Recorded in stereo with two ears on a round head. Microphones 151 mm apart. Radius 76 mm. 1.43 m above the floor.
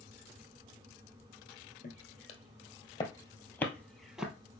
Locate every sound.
1.8 s footsteps: 50° left (ahead or behind), 2 m; by 4.3 s 5° right (ahead or behind), 1.6 m